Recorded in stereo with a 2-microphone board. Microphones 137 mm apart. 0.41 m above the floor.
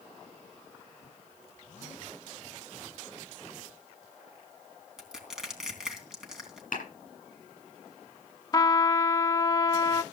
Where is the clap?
80° left, 8 m.